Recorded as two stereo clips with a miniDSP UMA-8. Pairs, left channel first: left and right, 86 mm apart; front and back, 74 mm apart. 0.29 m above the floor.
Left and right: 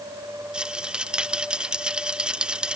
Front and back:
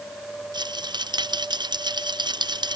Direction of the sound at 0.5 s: 170° right.